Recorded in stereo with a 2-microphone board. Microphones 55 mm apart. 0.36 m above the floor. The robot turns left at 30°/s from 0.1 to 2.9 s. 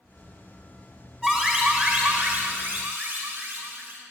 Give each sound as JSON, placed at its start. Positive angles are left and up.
{"t": 1.2, "sound": "an alarm", "azimuth_deg": -10, "distance_m": 4.5}